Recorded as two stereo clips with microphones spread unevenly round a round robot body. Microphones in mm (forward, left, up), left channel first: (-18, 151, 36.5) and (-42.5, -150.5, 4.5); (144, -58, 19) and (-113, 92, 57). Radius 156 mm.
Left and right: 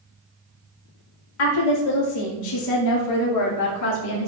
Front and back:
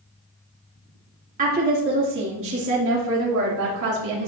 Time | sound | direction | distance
1.4 | a woman speaking | 85° left | 2.5 m